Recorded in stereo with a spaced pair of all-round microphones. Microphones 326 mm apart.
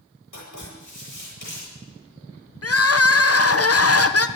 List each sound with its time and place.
0.3 s writing: 70° left (ahead or behind), 9 m
2.6 s crying: 45° left (ahead or behind), 0.7 m